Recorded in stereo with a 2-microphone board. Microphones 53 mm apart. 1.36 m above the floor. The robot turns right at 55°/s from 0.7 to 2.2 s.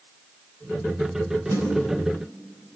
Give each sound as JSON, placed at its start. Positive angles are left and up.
{"t": 1.5, "sound": "a snare drum", "side_deg": -70, "distance_m": 8.5}